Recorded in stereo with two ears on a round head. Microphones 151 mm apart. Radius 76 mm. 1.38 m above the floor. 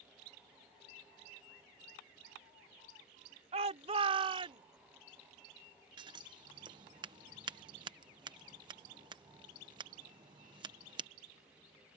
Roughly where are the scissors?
Right.